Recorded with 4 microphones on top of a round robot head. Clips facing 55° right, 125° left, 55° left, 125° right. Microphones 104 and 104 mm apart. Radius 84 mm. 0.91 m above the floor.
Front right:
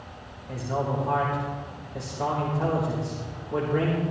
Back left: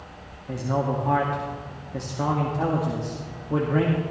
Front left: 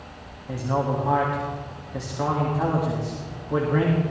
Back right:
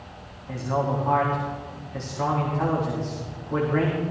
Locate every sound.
0.5 s a man speaking: 130° left, 2.0 m